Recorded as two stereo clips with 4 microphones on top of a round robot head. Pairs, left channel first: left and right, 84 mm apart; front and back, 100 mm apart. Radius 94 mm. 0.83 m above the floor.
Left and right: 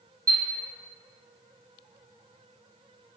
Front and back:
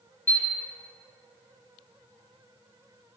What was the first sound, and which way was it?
A chime, 70° right.